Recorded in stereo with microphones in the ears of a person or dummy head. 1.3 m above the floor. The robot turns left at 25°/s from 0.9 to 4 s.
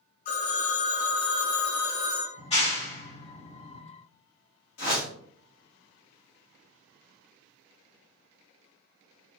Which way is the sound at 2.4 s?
25° left (ahead or behind).